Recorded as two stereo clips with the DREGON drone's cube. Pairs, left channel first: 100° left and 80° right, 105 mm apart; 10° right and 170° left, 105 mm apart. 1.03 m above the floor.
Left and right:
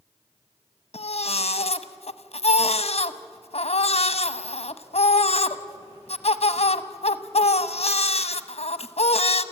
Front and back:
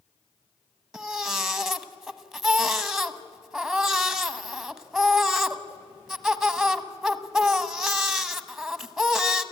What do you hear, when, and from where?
0.9 s a baby crying: 85° left, 0.8 m